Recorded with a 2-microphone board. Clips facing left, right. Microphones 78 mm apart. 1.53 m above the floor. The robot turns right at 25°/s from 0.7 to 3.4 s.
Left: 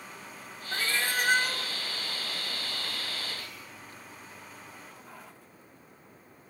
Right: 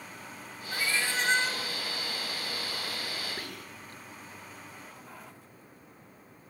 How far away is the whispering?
About 2 m.